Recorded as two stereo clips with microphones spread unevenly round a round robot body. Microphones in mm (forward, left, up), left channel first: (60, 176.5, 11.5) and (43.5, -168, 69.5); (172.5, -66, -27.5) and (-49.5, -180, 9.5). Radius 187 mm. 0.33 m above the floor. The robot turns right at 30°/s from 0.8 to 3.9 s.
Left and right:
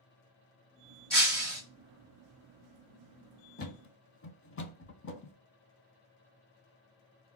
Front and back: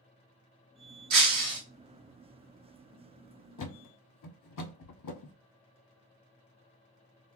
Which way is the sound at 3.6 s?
15° left.